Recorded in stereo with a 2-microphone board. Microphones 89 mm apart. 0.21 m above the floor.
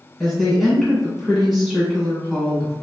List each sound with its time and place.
0.2 s a woman speaking: centre (ahead or behind), 2.0 m